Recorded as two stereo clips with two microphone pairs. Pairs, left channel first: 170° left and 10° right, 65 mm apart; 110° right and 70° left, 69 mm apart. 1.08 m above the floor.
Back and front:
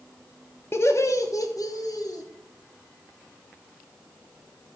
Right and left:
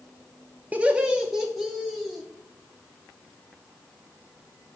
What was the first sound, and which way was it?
Laughter, 135° left.